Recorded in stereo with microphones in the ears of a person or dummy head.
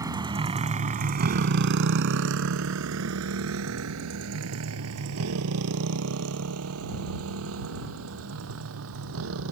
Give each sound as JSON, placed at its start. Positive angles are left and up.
{"t": 0.0, "sound": "a motorcycle", "side_deg": -15}